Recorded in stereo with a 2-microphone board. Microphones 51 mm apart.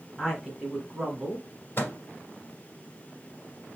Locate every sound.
0.2 s a woman speaking: 5° left (ahead or behind), 1.6 m; by 1.5 s 30° right (ahead or behind), 1.7 m
1.8 s a microwave: 50° left (ahead or behind), 1.6 m